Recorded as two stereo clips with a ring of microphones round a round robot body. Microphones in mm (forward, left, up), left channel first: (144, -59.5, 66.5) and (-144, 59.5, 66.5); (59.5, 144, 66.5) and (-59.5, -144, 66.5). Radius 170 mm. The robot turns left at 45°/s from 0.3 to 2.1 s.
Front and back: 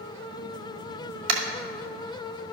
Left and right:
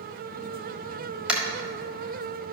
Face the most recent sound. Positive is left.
turn(degrees=125)